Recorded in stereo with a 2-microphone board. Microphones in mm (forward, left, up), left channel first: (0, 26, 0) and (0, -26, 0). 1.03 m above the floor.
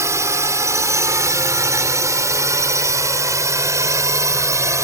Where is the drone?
70° right (ahead or behind).